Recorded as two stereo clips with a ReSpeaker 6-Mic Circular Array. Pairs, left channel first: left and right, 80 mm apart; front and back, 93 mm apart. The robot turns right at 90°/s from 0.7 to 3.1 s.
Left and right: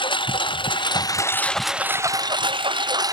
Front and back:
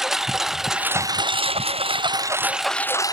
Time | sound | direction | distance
0.0 | a lawn mower | 95° left | ?